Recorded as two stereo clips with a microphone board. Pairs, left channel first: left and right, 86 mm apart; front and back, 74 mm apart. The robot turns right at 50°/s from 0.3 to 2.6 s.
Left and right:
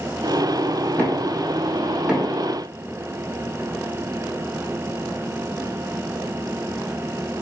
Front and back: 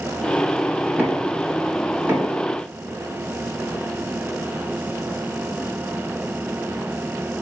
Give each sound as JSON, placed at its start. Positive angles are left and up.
{"t": 1.0, "sound": "knocking", "azimuth_deg": 145, "distance_m": 1.0}